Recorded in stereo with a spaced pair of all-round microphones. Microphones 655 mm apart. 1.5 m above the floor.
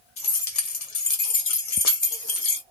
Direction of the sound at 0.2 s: 65° left (ahead or behind).